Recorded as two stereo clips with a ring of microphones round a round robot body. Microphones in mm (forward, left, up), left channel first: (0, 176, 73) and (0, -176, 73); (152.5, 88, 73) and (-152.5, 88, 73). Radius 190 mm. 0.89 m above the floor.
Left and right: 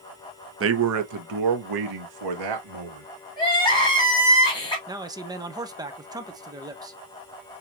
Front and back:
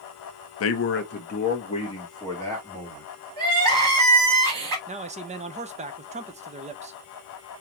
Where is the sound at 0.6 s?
40° right, 0.8 m; by 3.1 s 85° right, 1.8 m.